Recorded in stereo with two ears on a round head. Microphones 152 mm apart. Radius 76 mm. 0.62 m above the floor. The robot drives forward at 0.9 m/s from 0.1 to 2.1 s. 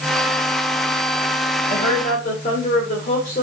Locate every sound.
1.7 s a woman speaking: 55° left (ahead or behind), 2 m; by 3.4 s 50° left (ahead or behind), 2 m